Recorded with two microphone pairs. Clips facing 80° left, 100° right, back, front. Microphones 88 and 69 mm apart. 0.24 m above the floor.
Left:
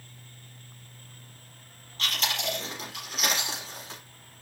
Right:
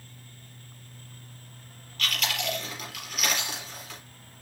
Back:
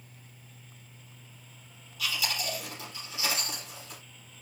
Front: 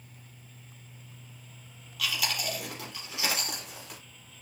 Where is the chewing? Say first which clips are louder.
Even, front 1 dB; 20° left, 4.5 m.